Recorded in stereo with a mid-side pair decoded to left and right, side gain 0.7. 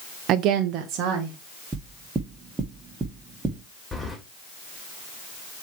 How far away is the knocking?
About 1.8 m.